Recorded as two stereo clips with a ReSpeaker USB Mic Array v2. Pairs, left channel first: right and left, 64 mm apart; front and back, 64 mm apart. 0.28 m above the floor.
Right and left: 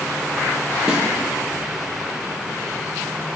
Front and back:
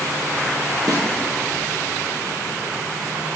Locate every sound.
0.9 s a snare drum: 170° left, 1.6 m